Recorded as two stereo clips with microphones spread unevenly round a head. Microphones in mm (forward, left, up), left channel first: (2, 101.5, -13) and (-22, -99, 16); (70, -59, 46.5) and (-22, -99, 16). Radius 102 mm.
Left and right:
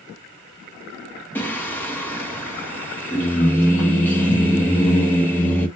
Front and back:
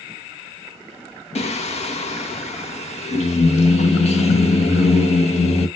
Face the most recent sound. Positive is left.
turn(degrees=5)